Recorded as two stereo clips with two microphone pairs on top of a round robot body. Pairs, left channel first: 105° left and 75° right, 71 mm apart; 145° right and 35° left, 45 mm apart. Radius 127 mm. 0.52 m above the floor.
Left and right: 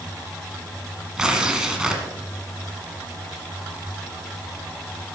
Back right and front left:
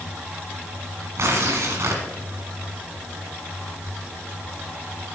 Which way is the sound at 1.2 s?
5° left.